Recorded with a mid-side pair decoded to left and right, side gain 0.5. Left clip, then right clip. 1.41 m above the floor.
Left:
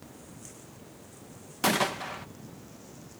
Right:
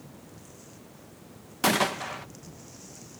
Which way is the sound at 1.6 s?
10° right.